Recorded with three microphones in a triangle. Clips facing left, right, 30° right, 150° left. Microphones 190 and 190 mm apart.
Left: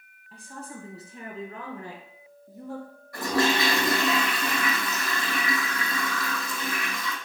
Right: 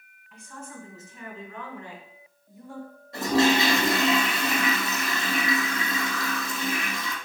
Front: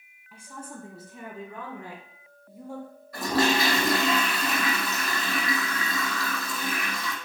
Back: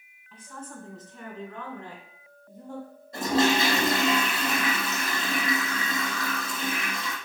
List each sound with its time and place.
0.3 s a woman speaking: 45° left, 2 m; by 2.9 s 50° left, 4 m
3.1 s a toilet flushing: 150° right, 3 m